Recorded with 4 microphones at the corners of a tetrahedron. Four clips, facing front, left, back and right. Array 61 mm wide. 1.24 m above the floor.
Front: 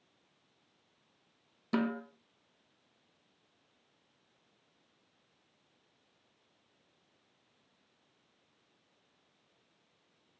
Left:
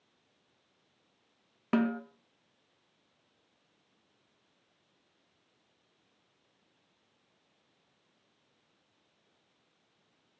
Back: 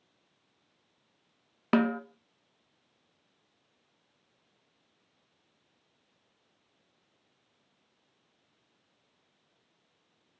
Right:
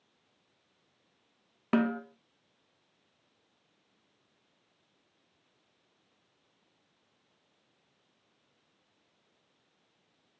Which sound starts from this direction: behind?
A snare drum, at 1.7 s.